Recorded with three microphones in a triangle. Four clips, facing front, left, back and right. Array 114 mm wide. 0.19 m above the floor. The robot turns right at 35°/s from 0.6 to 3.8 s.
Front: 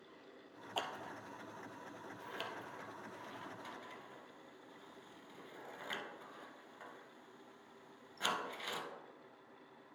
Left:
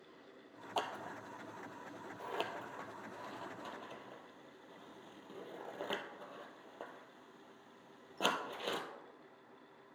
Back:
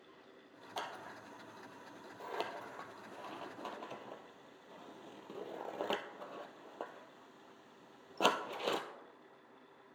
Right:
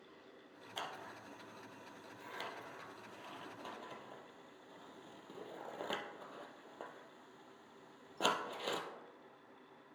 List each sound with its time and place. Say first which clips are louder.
0.8 s scissors: left 7 dB, front 1 dB; 80° left, 0.7 m; by 8.8 s 175° right, 0.7 m